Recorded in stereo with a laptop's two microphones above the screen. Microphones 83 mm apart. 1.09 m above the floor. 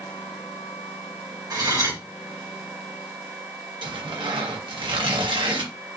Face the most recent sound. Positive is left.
turn(degrees=-70)  # may be behind; listen again after turning